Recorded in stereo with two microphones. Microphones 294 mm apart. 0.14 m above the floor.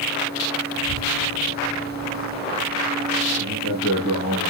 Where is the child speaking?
65° right (ahead or behind), 2.5 m; by 3.1 s 75° right (ahead or behind), 4.5 m.